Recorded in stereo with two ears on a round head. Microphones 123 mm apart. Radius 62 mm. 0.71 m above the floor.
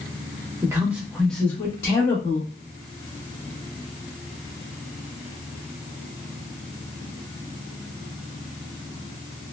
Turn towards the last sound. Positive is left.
turn(degrees=35)  # may be behind; listen again after turning